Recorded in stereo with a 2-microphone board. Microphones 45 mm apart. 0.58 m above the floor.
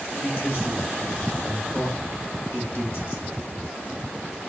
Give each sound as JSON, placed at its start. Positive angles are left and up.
{"t": 0.2, "sound": "a man speaking", "side_deg": 50, "distance_m": 2.5}